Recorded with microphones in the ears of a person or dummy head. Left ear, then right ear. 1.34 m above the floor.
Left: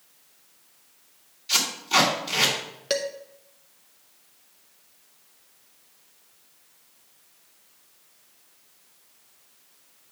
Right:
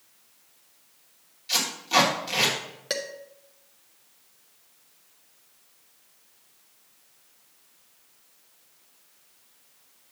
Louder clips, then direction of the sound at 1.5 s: Left 1 dB; 10° right (ahead or behind).